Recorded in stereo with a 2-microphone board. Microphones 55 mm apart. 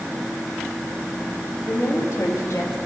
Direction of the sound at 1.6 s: 65° left (ahead or behind).